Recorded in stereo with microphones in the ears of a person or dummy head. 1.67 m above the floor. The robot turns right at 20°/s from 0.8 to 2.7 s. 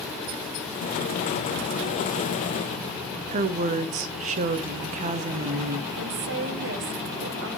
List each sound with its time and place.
3.3 s a woman speaking: 40° right (ahead or behind), 0.6 m
6.0 s a woman speaking: 65° right (ahead or behind), 1.0 m